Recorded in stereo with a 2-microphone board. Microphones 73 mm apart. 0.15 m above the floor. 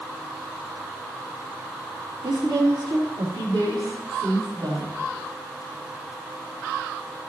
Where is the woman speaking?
70° right (ahead or behind), 3 m; by 4.9 s 75° right (ahead or behind), 4.5 m.